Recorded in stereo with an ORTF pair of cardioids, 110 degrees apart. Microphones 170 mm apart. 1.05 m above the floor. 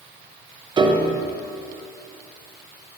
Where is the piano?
25° right, 0.6 m.